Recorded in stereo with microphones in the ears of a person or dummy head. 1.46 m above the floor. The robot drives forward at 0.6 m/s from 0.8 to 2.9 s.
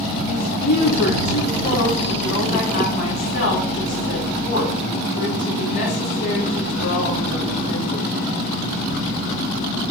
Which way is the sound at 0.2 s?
55° left (ahead or behind).